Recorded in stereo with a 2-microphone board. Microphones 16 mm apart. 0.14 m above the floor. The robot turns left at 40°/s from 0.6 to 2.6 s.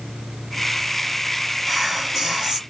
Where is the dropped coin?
I don't hear a dropped coin.